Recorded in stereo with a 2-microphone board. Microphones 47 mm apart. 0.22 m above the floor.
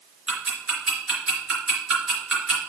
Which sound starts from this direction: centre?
Ticking, at 0.3 s.